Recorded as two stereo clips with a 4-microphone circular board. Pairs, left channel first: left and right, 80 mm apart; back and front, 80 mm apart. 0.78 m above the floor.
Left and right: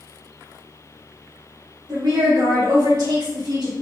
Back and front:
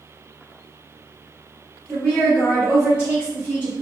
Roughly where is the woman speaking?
Right.